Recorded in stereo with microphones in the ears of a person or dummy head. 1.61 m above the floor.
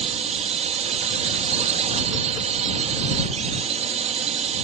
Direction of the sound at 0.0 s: 35° right (ahead or behind).